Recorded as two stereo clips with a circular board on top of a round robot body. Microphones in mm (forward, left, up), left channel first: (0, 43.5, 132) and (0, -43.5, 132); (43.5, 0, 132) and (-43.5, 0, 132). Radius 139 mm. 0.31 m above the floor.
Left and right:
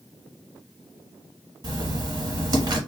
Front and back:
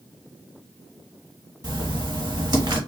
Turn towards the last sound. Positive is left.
turn(degrees=-135)